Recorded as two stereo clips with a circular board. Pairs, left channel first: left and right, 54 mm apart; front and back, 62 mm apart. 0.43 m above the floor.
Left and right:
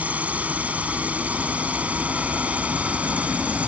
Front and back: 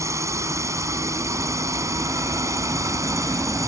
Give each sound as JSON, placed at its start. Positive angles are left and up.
{"t": 0.0, "sound": "a drone", "azimuth_deg": -155}